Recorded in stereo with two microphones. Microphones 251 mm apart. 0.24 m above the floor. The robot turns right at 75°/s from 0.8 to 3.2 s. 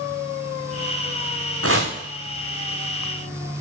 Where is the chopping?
60° right (ahead or behind), 3.5 m; by 1.9 s 40° right (ahead or behind), 3.5 m.